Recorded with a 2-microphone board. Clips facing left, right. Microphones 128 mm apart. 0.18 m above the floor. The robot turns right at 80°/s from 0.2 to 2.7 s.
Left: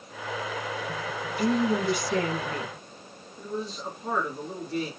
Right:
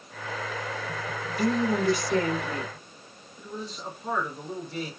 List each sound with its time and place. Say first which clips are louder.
1.3 s a woman speaking: left 1 dB; 125° right, 1.4 m; by 2.8 s 10° right, 1.4 m
3.4 s a man speaking: left 4 dB; 5° left (ahead or behind), 2 m